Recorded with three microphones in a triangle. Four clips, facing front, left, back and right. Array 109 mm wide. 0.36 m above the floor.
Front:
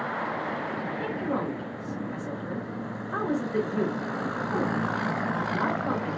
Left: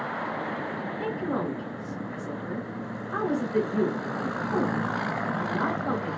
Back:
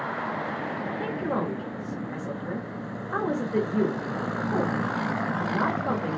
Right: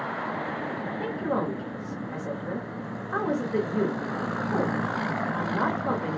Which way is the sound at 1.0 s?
125° right.